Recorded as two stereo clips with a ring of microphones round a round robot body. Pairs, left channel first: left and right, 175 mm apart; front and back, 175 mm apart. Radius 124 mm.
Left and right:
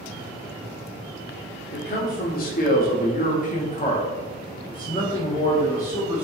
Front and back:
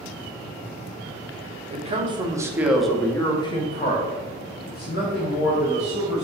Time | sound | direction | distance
1.7 | a man speaking | 135° left | 1.0 m